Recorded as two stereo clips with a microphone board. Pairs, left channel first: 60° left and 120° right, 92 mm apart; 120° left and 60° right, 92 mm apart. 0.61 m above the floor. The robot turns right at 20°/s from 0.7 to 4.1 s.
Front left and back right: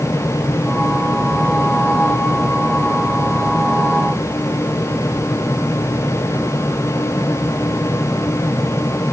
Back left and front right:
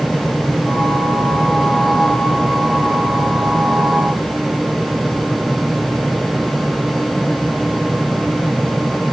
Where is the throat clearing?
No throat clearing in this recording.